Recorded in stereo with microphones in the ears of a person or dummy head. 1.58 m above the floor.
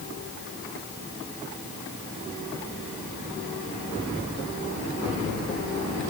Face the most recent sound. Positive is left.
No sound to turn to.